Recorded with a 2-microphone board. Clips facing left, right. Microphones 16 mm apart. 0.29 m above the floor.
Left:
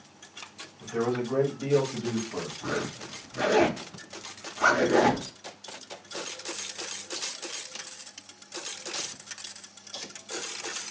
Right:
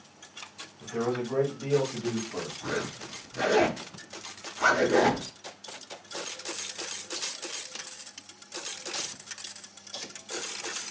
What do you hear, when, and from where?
0.8 s a man speaking: 10° left (ahead or behind), 2 m; by 2.5 s 25° left (ahead or behind), 1.7 m
2.6 s a zipper: 10° left (ahead or behind), 1.7 m